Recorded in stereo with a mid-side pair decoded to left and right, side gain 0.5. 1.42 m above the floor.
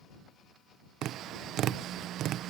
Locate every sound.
1.0 s tapping: 70° right